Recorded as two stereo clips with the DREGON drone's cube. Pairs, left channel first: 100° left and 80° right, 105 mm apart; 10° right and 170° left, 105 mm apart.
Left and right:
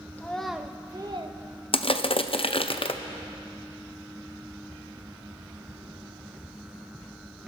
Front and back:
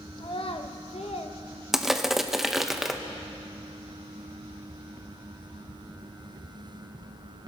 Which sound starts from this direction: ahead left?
A child speaking, at 0.2 s.